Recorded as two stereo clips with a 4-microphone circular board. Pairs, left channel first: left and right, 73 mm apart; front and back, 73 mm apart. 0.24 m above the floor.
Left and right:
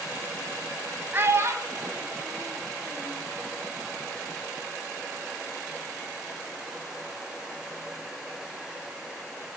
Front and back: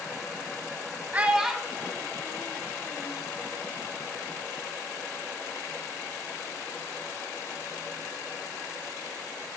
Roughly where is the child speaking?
Behind right.